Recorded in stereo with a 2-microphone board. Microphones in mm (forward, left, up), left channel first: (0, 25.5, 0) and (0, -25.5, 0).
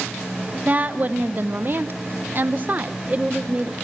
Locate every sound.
0.7 s a woman speaking: 35° right (ahead or behind), 1.4 m; by 3.7 s 20° right (ahead or behind), 1.1 m